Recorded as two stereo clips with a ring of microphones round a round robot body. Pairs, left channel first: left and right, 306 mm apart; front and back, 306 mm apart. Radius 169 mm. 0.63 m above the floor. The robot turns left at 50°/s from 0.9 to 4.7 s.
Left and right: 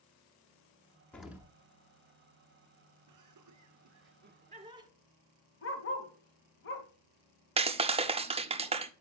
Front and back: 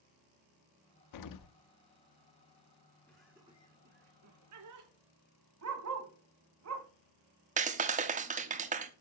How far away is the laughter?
About 2 m.